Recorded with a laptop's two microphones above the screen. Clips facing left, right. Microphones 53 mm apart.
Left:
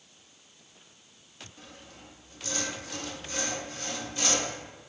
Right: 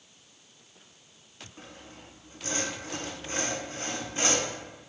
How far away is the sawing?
About 0.5 m.